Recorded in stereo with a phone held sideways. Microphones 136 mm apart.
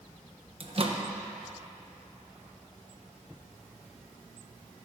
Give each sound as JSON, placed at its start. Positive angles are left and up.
{"t": 0.6, "sound": "a microwave", "side_deg": -45, "distance_m": 1.1}